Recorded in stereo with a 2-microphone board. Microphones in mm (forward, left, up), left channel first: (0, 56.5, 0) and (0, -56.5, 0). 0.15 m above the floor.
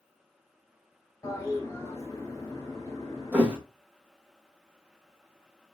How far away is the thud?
About 1.7 m.